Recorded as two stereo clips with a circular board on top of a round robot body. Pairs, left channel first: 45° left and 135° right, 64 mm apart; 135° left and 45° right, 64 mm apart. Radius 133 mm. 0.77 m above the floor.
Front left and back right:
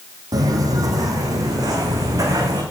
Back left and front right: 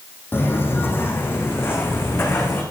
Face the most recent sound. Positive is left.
turn(degrees=-165)